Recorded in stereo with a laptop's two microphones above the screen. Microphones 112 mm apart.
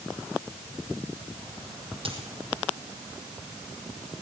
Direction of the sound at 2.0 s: 55° right (ahead or behind).